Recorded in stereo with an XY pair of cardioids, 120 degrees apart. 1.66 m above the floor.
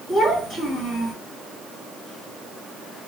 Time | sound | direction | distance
0.1 | a child speaking | 15° right | 2.5 m